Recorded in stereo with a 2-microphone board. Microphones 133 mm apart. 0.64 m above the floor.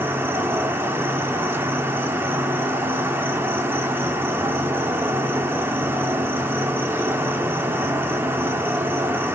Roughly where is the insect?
Centre.